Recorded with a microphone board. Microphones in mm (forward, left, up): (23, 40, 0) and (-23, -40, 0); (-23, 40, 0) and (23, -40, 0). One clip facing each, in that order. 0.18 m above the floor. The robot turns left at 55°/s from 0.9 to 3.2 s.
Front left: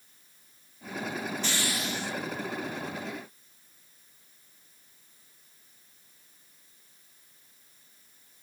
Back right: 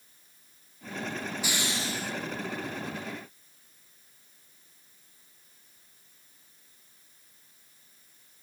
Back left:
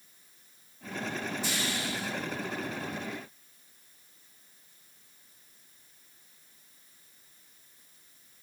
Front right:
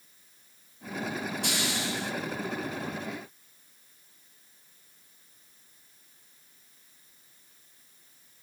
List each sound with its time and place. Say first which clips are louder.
1.4 s a hiss: even, front right 2 dB; 40° right, 2.5 m; by 2.1 s 75° right, 2.5 m